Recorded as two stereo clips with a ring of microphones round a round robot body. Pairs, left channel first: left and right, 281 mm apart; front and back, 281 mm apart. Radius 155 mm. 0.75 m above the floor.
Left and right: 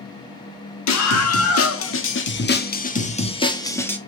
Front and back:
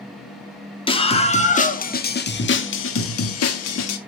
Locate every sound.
0.9 s a scream: 70° left, 2.0 m; by 4.0 s 5° left, 1.6 m